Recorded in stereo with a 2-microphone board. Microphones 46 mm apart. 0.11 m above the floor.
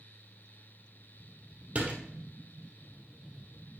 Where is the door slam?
30° right (ahead or behind), 2 m.